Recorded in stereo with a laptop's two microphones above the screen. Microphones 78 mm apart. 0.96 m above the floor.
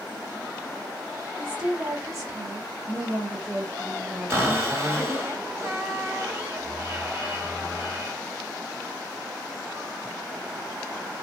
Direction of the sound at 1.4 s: 40° right (ahead or behind).